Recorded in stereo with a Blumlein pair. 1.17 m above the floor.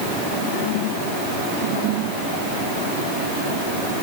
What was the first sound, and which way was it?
Only background noise.